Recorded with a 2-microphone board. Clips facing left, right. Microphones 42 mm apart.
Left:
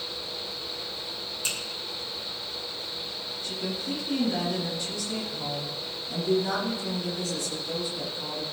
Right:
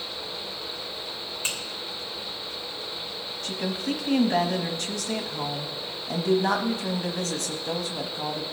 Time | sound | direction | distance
1.4 | a finger snap | 40° right (ahead or behind) | 2.5 m
3.4 | a woman speaking | 70° right (ahead or behind) | 1.0 m